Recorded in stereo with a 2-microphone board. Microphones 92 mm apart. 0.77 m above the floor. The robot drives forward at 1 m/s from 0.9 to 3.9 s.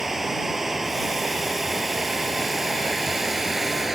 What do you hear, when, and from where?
0.0 s running water: 5° right (ahead or behind)